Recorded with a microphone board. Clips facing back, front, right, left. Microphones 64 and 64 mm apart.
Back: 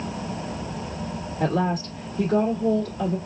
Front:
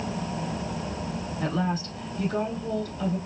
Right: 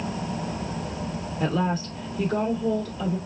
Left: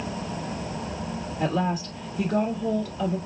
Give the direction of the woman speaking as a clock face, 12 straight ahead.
7 o'clock.